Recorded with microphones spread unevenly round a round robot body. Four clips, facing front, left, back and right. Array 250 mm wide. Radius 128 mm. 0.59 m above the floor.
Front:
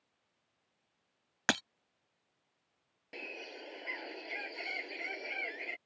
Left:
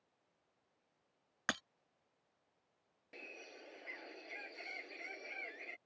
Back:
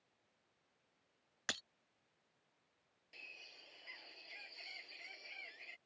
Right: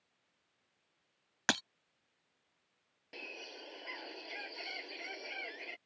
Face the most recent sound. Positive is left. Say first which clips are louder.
# right 5 dB, front 17 dB
turn(degrees=-15)